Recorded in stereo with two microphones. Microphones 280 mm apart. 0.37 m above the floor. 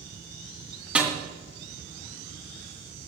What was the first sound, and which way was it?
A snare drum, 5° right (ahead or behind).